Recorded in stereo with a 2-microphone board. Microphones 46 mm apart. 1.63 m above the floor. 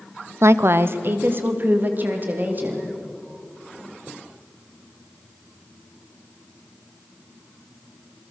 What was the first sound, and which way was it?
A woman speaking, 80° right.